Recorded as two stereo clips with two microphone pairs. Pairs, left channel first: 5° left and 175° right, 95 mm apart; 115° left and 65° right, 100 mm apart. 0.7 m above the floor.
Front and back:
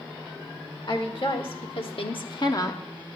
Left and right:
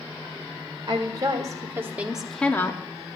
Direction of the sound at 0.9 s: 20° right.